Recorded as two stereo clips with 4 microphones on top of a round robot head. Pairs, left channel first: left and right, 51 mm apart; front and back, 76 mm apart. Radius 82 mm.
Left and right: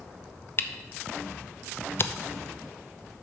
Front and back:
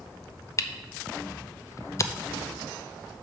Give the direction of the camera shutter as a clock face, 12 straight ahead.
10 o'clock.